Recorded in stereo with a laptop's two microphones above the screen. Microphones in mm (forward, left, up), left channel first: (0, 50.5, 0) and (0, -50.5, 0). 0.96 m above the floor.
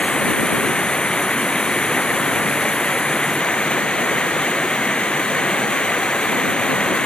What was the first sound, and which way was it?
Running water, 10° left (ahead or behind).